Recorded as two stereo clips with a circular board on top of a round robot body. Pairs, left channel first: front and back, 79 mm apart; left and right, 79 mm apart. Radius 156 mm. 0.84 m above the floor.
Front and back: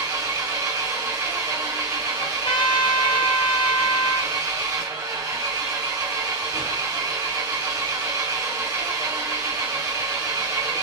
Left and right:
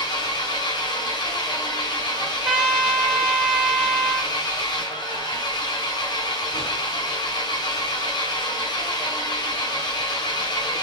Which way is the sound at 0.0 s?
125° left.